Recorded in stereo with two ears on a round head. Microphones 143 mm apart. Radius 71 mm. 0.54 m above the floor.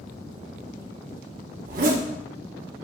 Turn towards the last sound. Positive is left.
turn(degrees=-55)  # may be behind; listen again after turning